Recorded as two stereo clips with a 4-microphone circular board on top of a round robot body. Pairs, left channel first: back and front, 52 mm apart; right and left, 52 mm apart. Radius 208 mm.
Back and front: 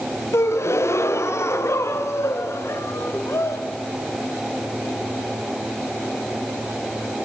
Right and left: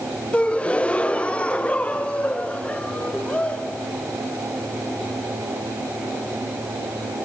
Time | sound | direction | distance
0.3 | a gasp | 155° right | 1.0 m